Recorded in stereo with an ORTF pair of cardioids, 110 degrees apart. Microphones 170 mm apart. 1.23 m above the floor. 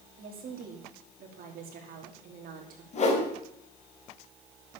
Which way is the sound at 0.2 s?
60° right.